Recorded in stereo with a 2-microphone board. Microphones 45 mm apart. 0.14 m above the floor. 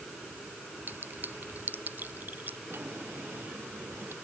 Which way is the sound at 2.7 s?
60° right (ahead or behind).